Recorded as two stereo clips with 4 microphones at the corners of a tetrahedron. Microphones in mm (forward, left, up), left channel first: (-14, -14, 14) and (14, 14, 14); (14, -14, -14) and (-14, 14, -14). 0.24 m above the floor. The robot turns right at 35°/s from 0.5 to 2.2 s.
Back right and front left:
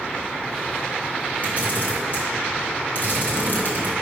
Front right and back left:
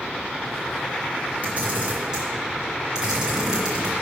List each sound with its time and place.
1.4 s a camera shutter: straight behind, 2.5 m; by 3.9 s 155° right, 2.5 m